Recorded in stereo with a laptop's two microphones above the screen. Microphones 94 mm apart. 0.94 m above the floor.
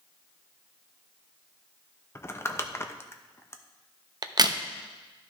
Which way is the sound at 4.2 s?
45° right (ahead or behind).